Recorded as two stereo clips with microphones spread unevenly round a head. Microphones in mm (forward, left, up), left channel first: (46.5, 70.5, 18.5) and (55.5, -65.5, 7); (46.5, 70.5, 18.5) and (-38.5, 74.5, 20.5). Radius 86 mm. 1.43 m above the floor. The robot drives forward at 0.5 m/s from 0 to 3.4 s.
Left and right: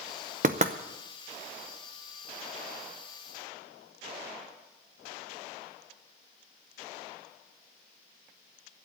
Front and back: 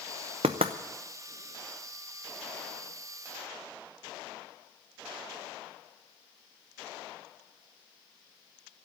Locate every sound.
0.4 s knocking: 135° right, 0.7 m; by 0.7 s 145° right, 0.8 m